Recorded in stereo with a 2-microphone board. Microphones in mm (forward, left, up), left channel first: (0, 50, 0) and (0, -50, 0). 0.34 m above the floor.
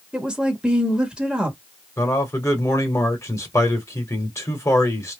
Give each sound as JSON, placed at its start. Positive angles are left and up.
{"t": 0.1, "sound": "a woman speaking", "side_deg": -10, "distance_m": 1.0}
{"t": 2.0, "sound": "a man speaking", "side_deg": 30, "distance_m": 1.1}